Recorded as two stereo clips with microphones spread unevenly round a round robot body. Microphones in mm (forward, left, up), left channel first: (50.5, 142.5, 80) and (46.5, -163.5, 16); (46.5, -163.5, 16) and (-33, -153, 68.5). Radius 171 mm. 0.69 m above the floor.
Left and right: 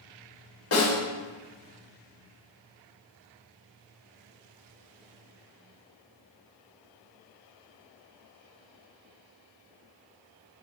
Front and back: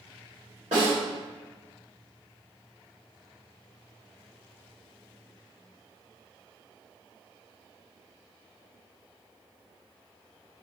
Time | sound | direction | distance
0.7 | a snare drum | 115° left | 4 m